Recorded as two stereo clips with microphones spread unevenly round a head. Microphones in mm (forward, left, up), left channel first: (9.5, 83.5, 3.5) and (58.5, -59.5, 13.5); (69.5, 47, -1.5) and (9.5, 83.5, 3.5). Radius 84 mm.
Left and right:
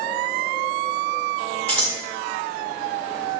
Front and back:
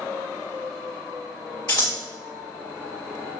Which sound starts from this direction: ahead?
Scissors, at 1.7 s.